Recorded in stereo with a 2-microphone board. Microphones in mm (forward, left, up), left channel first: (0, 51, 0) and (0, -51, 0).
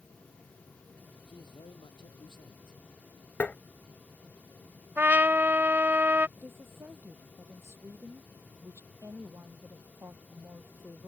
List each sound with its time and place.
1.3 s a man speaking: 50° left (ahead or behind)
3.4 s tapping: 15° left (ahead or behind)
5.0 s a trumpet: 20° right (ahead or behind)
6.4 s a woman speaking: 25° right (ahead or behind)